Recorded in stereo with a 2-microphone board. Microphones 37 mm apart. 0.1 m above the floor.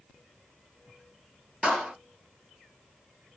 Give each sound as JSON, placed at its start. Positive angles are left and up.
{"t": 1.6, "sound": "a clap", "side_deg": -35, "distance_m": 1.4}